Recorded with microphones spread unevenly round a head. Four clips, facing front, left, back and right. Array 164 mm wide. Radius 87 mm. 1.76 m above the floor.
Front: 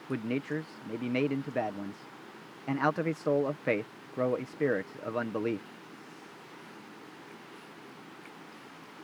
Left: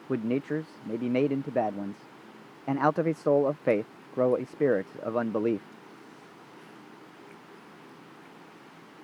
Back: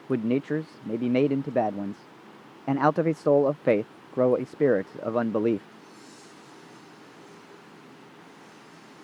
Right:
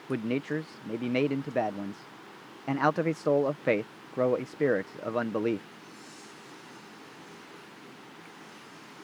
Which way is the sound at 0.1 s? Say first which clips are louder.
Left 2 dB, back 8 dB; 165° left.